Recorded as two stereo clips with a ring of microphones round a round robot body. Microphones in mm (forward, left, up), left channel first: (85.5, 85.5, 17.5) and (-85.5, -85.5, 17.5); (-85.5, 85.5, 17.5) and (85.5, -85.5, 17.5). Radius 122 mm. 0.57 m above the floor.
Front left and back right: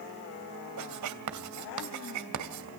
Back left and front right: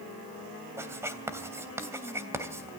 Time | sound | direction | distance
0.8 | writing | 125° right | 2.5 m